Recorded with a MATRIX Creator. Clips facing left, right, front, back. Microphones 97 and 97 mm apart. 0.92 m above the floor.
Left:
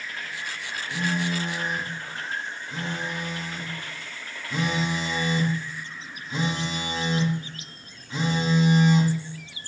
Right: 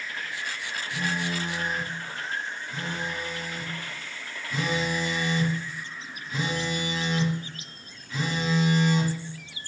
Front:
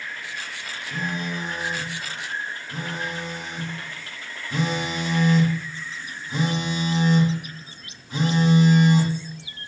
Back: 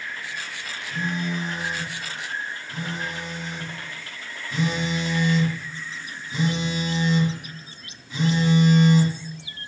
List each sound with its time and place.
0.9 s a phone buzzing: 30° left, 1.8 m